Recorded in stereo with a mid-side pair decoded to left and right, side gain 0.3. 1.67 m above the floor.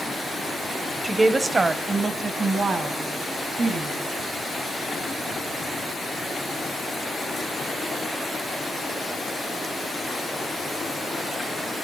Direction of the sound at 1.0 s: 30° right.